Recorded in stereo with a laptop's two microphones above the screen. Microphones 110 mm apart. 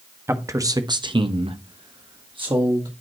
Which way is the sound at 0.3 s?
25° right (ahead or behind).